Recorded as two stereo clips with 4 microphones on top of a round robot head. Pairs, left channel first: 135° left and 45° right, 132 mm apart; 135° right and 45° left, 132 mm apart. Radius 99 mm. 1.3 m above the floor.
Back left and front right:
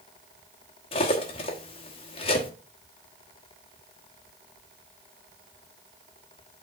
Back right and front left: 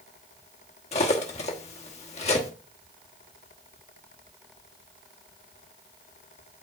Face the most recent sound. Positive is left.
turn(degrees=-175)